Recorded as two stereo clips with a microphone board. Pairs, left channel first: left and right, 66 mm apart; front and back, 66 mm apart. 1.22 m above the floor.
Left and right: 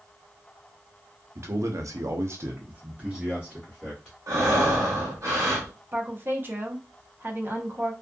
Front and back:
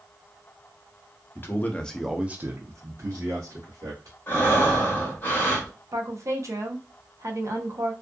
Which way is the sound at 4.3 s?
60° right.